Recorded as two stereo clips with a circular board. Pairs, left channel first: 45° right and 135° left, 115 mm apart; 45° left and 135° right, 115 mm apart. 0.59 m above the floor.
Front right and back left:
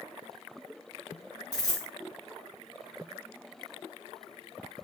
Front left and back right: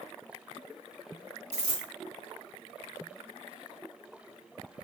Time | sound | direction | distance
1.5 | a dropped coin | 100° right | 0.9 m